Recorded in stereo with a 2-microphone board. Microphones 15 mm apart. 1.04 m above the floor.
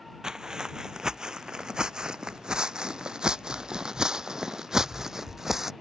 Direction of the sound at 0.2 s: 45° right (ahead or behind).